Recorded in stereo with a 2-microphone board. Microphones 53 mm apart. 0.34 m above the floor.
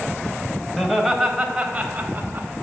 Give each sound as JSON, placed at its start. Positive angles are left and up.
{"t": 0.8, "sound": "laughter", "side_deg": 10, "distance_m": 1.7}